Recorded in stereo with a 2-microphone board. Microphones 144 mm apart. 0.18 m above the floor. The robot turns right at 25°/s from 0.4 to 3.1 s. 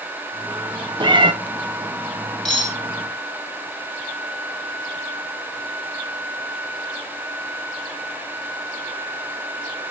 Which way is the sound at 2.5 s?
5° left (ahead or behind).